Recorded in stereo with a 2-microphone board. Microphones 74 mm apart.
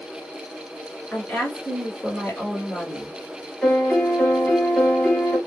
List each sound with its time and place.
1.1 s a woman speaking: 20° left (ahead or behind), 1.3 m
3.6 s a piano: 10° left (ahead or behind), 2.5 m